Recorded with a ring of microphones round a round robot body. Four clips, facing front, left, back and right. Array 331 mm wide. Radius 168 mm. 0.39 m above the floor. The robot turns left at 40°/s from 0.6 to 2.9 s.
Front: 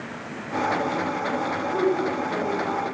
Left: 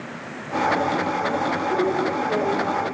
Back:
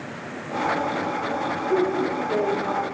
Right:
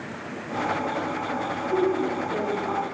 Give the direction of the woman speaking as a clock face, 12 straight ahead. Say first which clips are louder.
Right 1 dB, back 1 dB; 6 o'clock.